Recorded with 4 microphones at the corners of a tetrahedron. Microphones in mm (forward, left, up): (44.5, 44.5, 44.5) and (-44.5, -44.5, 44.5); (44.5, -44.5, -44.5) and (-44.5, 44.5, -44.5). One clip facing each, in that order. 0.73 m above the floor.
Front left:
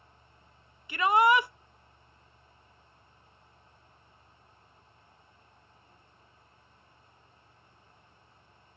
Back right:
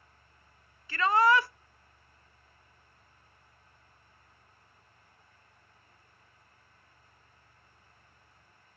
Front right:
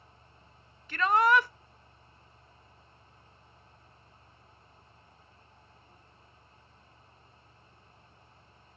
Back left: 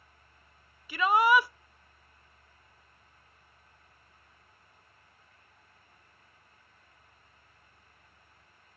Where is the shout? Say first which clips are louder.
Front left 1 dB, back left 1 dB; 80° left, 0.5 m.